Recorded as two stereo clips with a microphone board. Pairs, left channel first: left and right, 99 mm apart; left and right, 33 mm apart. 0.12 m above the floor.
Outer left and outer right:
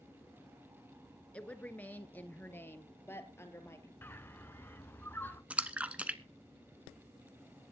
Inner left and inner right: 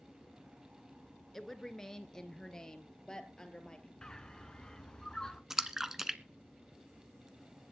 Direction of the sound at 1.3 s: 10° left (ahead or behind).